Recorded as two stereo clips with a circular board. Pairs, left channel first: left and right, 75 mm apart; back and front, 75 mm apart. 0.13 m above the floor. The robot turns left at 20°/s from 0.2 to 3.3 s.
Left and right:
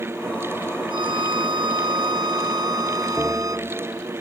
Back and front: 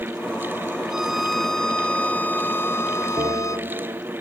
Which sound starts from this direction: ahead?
A bell, at 3.2 s.